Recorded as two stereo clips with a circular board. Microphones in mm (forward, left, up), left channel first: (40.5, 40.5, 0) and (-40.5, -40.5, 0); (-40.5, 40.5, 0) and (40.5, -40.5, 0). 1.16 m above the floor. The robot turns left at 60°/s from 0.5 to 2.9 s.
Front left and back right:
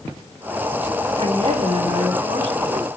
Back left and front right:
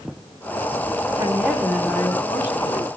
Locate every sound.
1.2 s a woman speaking: 95° right, 3.5 m; by 2.9 s 160° left, 3.5 m